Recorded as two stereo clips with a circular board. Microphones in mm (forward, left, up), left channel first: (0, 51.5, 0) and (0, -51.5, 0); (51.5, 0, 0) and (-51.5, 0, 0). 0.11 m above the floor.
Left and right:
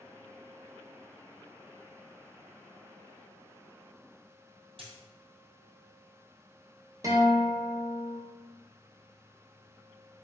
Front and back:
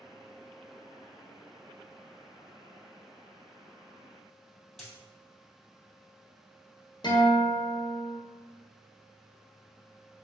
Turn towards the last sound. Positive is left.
turn(degrees=-35)